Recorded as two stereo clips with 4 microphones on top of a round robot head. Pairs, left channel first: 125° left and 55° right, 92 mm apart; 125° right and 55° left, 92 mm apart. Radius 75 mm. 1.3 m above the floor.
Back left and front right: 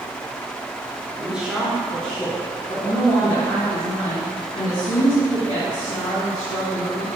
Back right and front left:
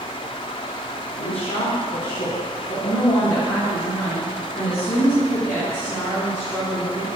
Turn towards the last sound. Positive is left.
turn(degrees=165)